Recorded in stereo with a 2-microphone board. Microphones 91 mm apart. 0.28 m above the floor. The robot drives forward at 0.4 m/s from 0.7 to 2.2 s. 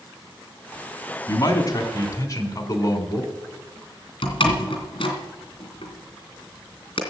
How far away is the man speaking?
About 3 m.